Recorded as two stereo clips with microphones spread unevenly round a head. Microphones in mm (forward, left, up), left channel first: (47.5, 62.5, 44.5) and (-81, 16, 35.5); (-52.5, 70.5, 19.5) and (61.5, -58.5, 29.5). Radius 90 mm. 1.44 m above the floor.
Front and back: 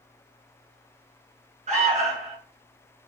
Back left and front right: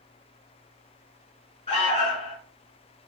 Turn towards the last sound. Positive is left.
turn(degrees=180)